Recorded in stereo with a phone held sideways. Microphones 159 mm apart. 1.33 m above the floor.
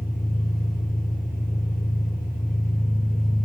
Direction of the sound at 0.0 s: 65° left (ahead or behind).